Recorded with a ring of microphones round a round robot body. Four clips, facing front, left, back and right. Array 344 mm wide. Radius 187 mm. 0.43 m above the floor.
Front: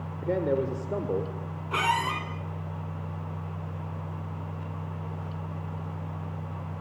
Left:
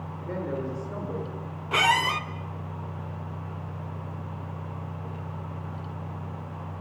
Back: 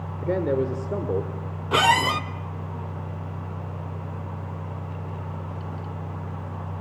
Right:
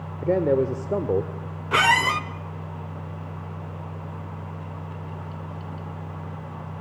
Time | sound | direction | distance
0.2 | a man speaking | 105° right | 1.9 m
1.7 | a squeak | 160° right | 1.1 m